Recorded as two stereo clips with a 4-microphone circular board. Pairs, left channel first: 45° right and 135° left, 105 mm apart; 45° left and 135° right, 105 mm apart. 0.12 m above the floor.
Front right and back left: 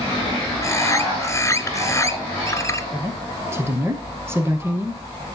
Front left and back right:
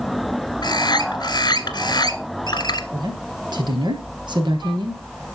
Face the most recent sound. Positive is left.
turn(degrees=-165)